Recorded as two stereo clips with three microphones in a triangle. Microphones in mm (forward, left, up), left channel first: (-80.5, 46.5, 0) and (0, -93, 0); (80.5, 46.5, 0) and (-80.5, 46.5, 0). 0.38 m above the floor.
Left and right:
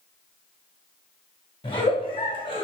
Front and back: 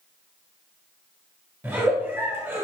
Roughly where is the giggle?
Behind left.